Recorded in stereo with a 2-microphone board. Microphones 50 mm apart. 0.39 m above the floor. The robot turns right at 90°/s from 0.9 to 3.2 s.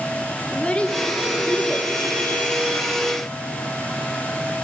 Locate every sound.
0.5 s a child speaking: 20° left (ahead or behind), 0.9 m; by 1.9 s 5° right (ahead or behind), 0.9 m